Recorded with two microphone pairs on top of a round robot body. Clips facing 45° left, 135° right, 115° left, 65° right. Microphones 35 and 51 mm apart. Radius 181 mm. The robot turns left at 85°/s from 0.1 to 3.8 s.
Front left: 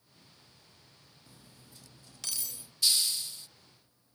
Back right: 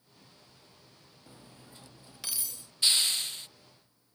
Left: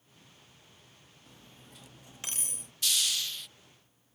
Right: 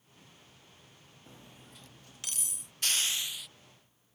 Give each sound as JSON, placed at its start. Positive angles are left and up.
{"t": 1.3, "sound": "cutlery clinking", "azimuth_deg": -110}
{"t": 2.8, "sound": "a hiss", "azimuth_deg": -95}